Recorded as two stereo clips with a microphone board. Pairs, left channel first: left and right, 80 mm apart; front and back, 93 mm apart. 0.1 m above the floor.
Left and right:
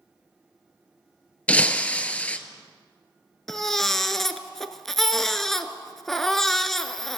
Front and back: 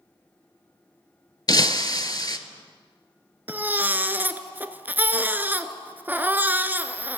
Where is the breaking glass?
20° left, 0.6 m.